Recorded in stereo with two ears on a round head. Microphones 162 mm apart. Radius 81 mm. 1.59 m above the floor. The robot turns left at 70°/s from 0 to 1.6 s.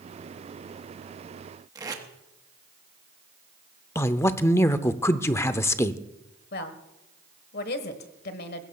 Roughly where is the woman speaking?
Left.